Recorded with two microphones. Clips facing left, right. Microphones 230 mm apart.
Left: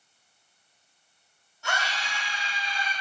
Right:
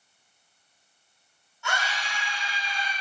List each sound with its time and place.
1.6 s a scream: 40° left (ahead or behind), 2 m; by 2.9 s 25° left (ahead or behind), 1.6 m